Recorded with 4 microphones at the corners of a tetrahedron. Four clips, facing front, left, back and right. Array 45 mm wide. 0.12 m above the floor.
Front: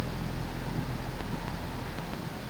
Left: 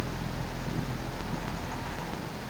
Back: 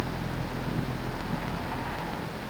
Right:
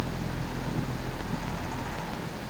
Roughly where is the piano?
I don't hear a piano.